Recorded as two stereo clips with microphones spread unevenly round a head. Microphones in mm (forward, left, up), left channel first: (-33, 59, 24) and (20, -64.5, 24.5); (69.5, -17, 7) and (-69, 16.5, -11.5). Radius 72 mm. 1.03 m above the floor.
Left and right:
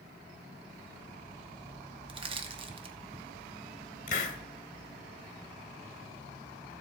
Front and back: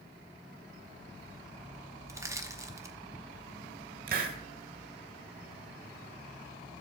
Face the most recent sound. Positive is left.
turn(degrees=140)